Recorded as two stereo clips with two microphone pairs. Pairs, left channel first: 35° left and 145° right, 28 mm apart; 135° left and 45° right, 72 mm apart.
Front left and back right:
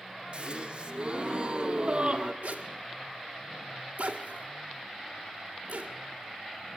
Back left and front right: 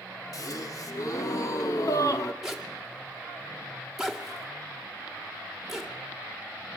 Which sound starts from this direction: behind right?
A zipper, at 2.4 s.